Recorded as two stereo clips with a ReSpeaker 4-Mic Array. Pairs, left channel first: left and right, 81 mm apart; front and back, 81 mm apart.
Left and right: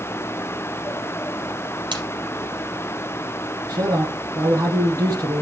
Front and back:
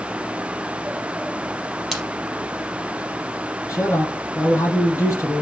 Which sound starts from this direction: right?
A splash, at 1.9 s.